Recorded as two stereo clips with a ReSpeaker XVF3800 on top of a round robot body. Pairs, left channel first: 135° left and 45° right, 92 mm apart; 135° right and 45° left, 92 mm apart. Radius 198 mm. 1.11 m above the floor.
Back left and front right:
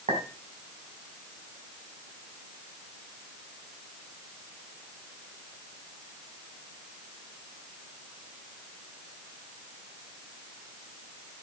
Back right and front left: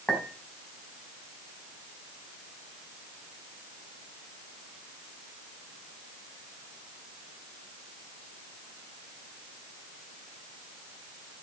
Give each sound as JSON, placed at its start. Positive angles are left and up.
{"t": 0.1, "sound": "a clink", "azimuth_deg": -50, "distance_m": 5.0}